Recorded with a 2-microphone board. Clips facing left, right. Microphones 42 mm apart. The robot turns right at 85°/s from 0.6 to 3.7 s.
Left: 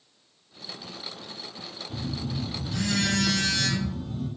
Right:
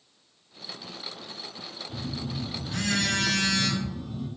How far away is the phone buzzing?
About 0.6 m.